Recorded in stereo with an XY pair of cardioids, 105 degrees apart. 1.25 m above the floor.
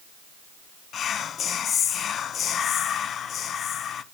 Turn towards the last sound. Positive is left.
turn(degrees=60)